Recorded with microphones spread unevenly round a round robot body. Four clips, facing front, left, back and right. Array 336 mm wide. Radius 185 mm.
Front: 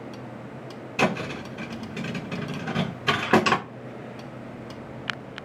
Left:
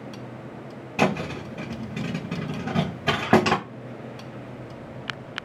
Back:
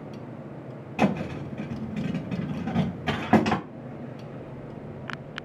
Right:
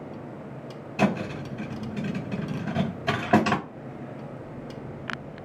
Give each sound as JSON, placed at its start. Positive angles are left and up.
{"t": 1.0, "sound": "a thud", "azimuth_deg": 125, "distance_m": 1.7}